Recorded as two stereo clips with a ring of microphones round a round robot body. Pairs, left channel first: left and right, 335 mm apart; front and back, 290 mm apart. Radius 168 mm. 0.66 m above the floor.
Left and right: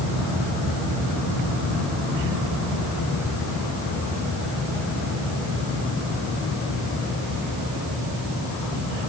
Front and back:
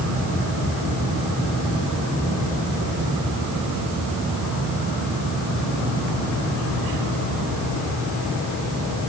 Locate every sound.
Only background noise.